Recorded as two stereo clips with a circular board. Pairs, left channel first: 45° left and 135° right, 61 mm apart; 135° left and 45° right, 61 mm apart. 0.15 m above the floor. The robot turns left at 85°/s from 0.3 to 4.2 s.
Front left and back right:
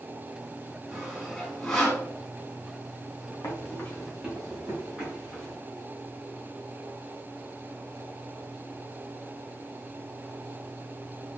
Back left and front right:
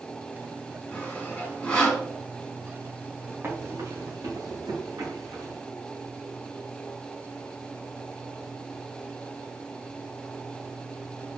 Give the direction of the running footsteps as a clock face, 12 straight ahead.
12 o'clock.